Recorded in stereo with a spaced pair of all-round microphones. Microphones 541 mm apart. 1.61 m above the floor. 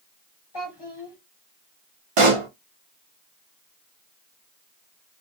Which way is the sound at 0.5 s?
45° left (ahead or behind).